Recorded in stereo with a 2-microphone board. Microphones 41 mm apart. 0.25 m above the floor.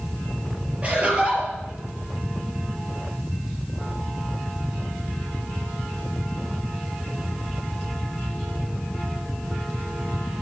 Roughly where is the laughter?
Right.